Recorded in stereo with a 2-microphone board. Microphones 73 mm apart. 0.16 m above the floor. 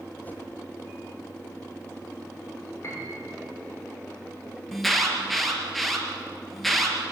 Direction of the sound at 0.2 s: 25° left (ahead or behind).